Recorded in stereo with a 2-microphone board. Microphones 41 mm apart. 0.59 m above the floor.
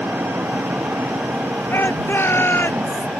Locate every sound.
0.0 s an engine running: 70° right (ahead or behind)
1.7 s a shout: 60° left (ahead or behind)